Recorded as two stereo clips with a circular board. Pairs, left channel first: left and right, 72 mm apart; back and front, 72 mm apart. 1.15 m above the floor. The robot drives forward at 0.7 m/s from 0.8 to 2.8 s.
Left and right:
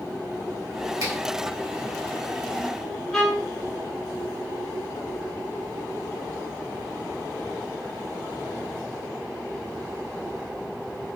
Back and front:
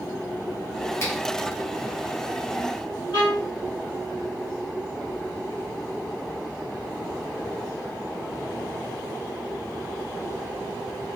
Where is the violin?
175° left, 2.5 m.